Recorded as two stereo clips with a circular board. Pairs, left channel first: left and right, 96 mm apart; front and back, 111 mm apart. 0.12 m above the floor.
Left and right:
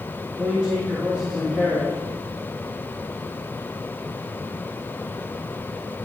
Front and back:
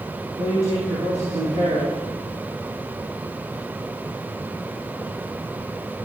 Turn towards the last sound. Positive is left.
turn(degrees=-170)